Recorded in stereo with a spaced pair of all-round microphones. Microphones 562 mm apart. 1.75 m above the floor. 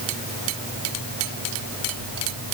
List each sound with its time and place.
Only background noise.